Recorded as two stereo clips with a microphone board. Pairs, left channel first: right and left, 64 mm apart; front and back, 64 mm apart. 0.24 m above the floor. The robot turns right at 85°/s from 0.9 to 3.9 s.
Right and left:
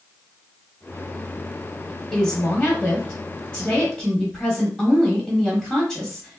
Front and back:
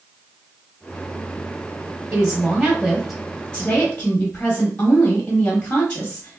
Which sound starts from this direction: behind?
A woman speaking, at 2.1 s.